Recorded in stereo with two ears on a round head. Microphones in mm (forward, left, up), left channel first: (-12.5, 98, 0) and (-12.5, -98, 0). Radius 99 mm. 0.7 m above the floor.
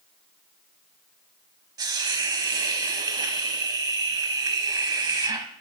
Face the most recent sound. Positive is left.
turn(degrees=-20)  # may be behind; listen again after turning